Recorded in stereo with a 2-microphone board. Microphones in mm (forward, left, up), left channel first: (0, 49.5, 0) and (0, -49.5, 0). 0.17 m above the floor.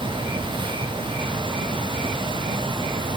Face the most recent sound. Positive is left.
No sound to turn to.